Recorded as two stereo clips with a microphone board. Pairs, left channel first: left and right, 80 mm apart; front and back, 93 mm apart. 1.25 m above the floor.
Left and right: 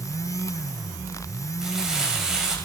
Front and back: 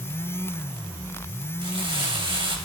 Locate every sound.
1.6 s crumpling: 175° right, 3 m